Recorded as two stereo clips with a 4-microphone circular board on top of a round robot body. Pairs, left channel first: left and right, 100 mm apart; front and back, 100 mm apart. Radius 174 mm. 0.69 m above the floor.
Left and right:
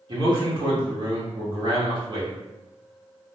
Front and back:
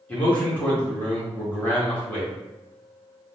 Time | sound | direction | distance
0.1 | a man speaking | 70° right | 1.6 m